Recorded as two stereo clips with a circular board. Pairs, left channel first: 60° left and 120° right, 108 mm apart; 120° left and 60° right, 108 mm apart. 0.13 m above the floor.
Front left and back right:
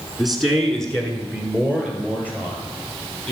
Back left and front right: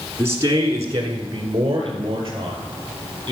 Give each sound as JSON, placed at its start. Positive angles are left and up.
{"t": 0.2, "sound": "a man speaking", "azimuth_deg": -35, "distance_m": 1.2}